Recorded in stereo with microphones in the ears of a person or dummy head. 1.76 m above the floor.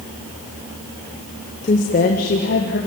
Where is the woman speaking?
35° left (ahead or behind), 1.5 m; by 2.8 s 60° left (ahead or behind), 3 m.